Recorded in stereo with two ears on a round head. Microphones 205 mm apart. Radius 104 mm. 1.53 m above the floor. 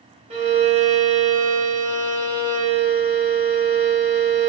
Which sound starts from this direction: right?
A violin, at 0.3 s.